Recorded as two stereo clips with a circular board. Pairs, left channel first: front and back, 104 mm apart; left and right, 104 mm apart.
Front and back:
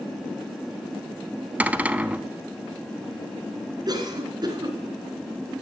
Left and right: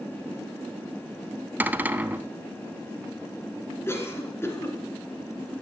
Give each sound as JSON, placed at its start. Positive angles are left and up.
{"t": 1.6, "sound": "a cupboard door", "azimuth_deg": -130, "distance_m": 0.6}
{"t": 3.9, "sound": "a cough", "azimuth_deg": 145, "distance_m": 2.5}